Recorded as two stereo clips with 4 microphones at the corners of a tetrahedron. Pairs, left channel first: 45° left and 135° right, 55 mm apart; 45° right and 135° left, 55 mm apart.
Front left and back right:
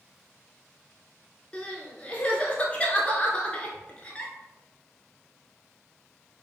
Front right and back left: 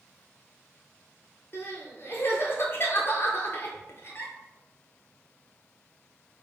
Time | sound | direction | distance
1.5 | crying | 20° right | 0.6 m